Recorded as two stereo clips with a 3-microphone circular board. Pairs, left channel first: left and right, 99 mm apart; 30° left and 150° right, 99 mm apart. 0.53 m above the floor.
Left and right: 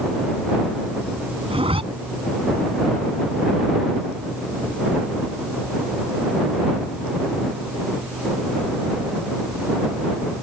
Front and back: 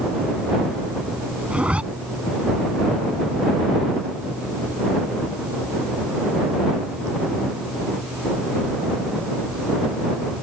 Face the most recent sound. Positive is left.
turn(degrees=-70)